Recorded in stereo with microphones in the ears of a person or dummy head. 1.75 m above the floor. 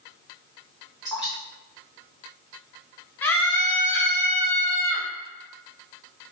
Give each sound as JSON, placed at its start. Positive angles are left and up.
{"t": 1.1, "sound": "dripping", "side_deg": 0, "distance_m": 1.0}
{"t": 3.2, "sound": "a scream", "side_deg": 15, "distance_m": 0.5}